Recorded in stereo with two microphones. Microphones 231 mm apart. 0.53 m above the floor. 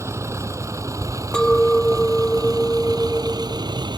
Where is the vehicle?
10° right (ahead or behind); by 4.0 s 20° right (ahead or behind).